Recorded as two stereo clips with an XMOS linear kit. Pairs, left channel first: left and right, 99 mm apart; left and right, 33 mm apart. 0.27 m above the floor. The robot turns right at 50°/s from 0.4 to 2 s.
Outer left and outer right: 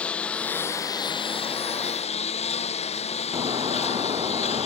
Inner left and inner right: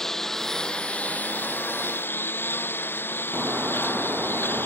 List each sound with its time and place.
0.0 s a lawn mower: 10° left; by 4.7 s 90° left
3.3 s breaking glass: 50° right (ahead or behind)